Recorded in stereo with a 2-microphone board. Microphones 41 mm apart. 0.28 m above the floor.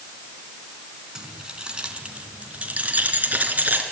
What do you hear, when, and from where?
1.1 s keys jangling: 15° right (ahead or behind), 1.9 m; by 3.8 s 50° right (ahead or behind), 2.5 m